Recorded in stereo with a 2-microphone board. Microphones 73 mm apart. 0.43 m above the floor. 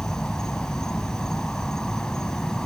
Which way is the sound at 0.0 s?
5° left (ahead or behind).